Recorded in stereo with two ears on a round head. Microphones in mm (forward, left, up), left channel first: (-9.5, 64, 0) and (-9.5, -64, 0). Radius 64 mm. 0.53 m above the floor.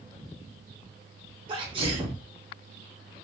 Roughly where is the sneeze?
Right.